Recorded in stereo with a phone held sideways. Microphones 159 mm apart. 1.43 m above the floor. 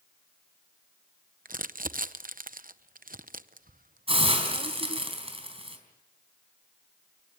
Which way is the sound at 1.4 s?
70° right (ahead or behind).